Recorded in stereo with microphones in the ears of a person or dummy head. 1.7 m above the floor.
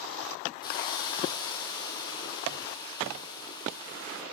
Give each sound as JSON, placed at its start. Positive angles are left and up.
{"t": 0.6, "sound": "a hiss", "side_deg": 25, "distance_m": 2.5}